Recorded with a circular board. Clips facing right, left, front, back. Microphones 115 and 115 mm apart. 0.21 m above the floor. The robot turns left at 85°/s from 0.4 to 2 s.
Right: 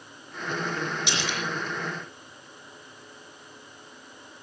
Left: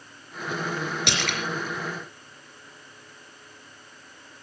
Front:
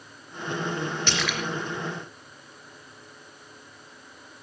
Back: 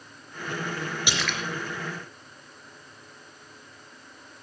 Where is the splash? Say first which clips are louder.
Left 2 dB, front 2 dB; 105° left, 3 m; by 1.4 s 75° left, 3 m.